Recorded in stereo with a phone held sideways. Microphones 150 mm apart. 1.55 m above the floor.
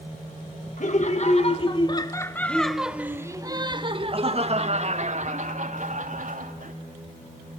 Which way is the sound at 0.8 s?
55° left (ahead or behind).